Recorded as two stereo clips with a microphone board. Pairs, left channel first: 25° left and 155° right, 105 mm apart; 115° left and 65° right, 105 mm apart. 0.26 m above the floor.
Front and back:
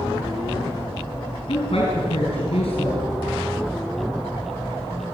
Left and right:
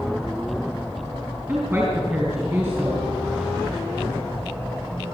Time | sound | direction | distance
1.5 | a woman speaking | straight ahead | 5 m